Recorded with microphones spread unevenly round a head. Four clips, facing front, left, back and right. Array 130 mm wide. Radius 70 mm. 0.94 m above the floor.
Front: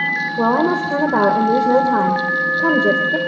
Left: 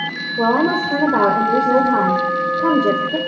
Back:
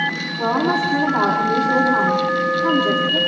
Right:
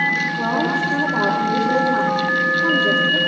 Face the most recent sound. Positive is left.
turn(degrees=30)